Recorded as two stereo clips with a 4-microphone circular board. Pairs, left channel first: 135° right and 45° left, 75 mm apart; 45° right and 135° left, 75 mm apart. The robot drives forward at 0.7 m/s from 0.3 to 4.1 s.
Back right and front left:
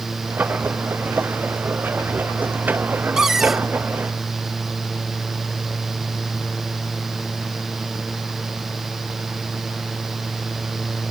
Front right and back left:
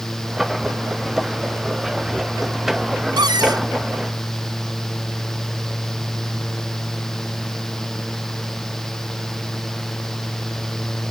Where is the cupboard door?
125° left; by 3.7 s 135° left.